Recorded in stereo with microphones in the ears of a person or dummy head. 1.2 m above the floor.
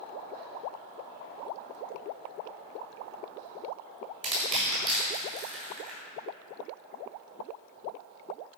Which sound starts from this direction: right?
Crushing, at 4.2 s.